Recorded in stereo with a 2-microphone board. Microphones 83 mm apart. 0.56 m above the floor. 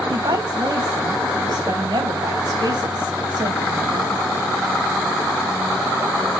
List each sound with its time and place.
0.1 s a woman speaking: 60° right (ahead or behind), 3.5 m